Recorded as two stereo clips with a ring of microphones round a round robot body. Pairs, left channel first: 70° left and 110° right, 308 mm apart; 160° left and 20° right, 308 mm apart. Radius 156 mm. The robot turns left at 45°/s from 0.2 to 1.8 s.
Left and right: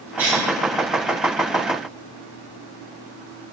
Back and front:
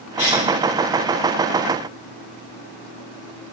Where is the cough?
165° left, 1.5 m; by 0.5 s 150° left, 1.5 m.